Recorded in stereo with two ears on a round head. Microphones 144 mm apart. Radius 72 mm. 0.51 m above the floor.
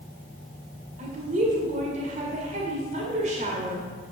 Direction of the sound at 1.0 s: 45° right (ahead or behind).